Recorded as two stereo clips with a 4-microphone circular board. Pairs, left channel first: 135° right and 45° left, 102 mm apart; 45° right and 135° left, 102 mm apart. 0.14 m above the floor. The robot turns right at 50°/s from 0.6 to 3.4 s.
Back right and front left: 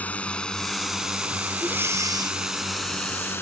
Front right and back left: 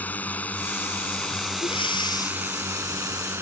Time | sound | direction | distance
0.0 | a drone | 85° right | ?
1.6 | breathing | 30° right | ?